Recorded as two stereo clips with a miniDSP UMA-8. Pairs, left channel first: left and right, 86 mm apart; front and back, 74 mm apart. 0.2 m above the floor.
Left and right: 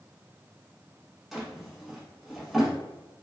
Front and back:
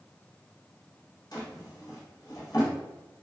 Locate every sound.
1.3 s a drawer: straight ahead, 1.0 m